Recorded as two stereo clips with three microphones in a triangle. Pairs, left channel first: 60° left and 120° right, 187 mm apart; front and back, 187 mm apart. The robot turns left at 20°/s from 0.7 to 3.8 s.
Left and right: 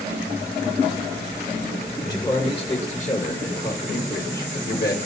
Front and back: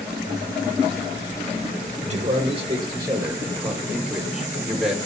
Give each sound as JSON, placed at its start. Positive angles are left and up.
{"t": 2.0, "sound": "a man speaking", "azimuth_deg": 130, "distance_m": 1.7}